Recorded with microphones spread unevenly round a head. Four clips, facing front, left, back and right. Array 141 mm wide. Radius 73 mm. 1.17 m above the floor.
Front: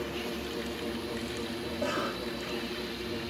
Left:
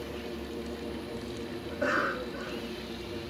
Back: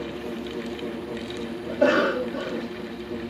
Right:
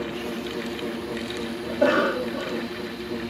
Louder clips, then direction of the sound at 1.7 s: Right 10 dB, back 14 dB; 150° right.